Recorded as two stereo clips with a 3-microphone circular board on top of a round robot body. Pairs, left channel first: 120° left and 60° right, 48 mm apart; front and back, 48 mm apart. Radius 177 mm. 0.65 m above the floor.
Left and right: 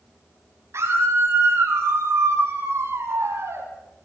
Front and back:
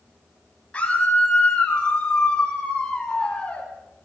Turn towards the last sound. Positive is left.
turn(degrees=-75)